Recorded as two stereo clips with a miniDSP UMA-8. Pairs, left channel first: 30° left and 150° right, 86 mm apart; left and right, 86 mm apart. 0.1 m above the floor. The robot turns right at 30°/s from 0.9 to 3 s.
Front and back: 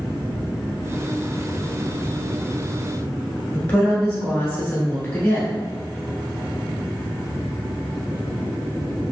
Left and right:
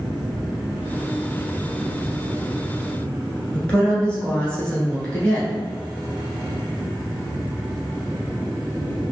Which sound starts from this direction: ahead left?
A woman speaking, at 3.5 s.